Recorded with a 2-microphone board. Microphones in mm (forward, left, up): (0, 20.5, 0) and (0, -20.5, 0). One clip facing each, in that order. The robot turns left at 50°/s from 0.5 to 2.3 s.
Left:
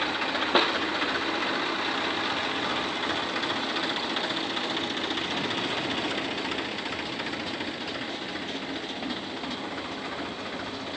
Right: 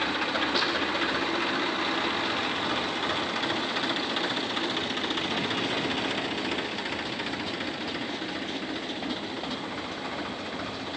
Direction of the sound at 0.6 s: 45° left (ahead or behind).